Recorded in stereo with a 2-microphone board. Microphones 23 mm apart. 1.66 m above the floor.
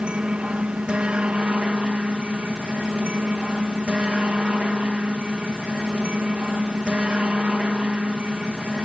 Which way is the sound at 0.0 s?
60° right (ahead or behind).